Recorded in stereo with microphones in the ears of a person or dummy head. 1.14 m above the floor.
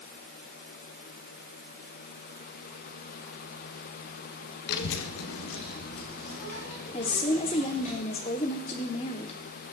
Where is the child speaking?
55° left (ahead or behind), 0.7 m; by 7.9 s 45° left (ahead or behind), 3 m.